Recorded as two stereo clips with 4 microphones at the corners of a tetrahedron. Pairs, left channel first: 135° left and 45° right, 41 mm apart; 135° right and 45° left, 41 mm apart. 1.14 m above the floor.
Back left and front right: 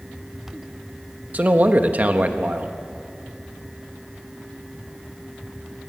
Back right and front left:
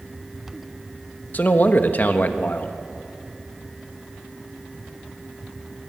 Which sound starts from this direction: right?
A man speaking, at 1.3 s.